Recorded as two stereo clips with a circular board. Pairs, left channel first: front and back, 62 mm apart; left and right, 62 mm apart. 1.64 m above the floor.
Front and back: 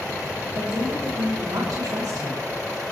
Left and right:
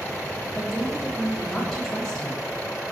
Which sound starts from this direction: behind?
A woman speaking, at 0.5 s.